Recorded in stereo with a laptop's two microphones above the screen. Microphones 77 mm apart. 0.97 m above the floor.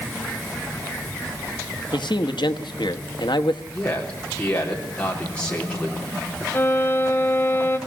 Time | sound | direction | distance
1.9 | a man speaking | 75° left (ahead or behind) | 1.0 m
3.7 | a man speaking | 15° left (ahead or behind) | 3.5 m
6.5 | a violin | 25° left (ahead or behind) | 1.0 m